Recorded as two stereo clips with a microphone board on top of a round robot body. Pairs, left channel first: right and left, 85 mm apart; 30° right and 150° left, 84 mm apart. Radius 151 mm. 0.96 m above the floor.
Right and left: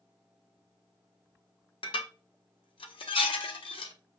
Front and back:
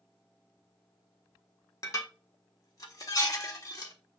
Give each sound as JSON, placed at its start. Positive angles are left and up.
{"t": 1.8, "sound": "dishes clattering", "azimuth_deg": -80, "distance_m": 1.4}